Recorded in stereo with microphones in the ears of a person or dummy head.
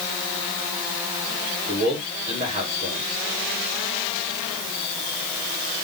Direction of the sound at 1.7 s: 30° right (ahead or behind).